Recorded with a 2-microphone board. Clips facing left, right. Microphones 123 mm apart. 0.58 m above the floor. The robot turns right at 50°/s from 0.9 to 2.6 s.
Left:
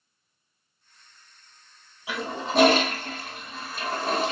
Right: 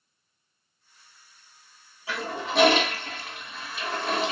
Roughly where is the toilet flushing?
Centre.